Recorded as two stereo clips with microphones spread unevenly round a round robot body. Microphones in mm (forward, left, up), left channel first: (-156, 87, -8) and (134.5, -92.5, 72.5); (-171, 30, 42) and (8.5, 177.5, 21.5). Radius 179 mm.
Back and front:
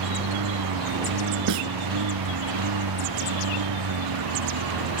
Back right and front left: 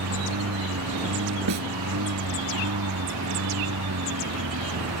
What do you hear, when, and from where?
0.0 s a lawn mower: 5° left; by 5.0 s straight ahead
1.5 s a snare drum: 10° left